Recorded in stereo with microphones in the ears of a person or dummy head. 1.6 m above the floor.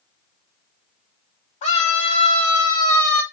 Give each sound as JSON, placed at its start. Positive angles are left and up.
{"t": 1.6, "sound": "a scream", "side_deg": 40, "distance_m": 1.7}